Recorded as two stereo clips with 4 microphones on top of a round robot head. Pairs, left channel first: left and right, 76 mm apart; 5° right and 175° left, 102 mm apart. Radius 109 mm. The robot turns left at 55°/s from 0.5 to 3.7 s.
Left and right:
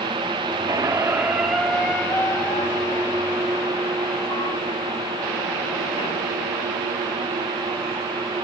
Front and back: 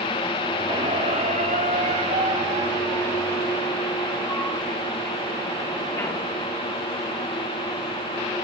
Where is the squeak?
125° right, 0.9 m; by 6.2 s 65° left, 0.9 m.